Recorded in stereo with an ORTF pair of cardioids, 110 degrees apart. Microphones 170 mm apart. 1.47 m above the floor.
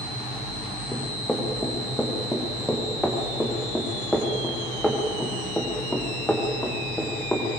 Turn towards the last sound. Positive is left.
turn(degrees=5)